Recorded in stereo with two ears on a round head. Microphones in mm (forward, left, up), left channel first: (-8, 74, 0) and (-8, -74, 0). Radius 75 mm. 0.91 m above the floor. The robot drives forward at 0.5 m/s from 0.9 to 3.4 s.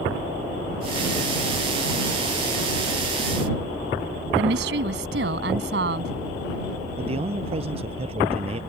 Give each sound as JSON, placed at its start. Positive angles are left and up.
{"t": 4.3, "sound": "a woman speaking", "side_deg": -80}
{"t": 7.0, "sound": "a man speaking", "side_deg": -40}